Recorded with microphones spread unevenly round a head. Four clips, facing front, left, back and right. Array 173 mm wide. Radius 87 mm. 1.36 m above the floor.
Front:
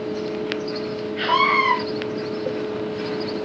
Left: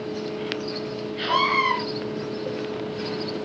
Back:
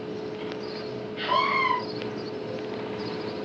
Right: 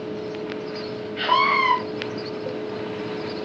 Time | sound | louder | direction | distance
0.0 | a fan | even, front 7 dB | 5° right | 4.5 m
1.2 | a scream | right 3 dB, front 5 dB | 45° right | 7 m